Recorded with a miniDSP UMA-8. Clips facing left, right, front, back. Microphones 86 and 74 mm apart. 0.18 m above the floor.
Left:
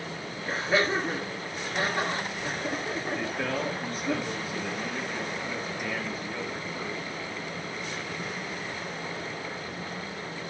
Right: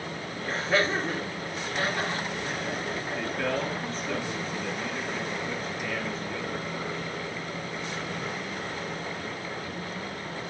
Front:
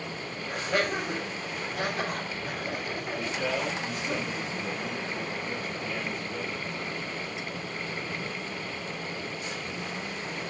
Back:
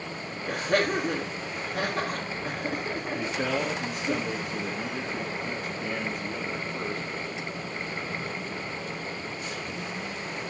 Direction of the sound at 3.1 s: 170° left.